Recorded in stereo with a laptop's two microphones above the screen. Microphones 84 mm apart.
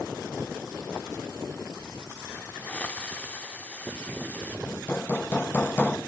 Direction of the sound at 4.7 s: 20° left (ahead or behind).